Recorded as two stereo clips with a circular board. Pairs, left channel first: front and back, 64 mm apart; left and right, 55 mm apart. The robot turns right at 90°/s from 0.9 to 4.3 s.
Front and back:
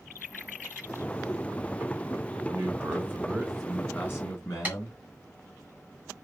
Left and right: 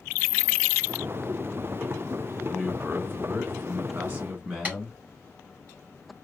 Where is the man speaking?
Straight behind, 1.8 m; by 5.0 s 15° right, 1.8 m.